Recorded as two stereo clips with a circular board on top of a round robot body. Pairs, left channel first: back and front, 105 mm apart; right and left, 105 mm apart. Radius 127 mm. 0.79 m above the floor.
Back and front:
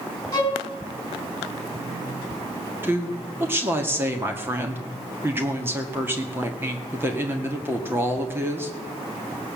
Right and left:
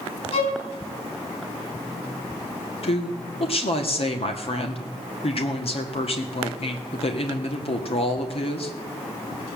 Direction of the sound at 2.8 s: 70° right.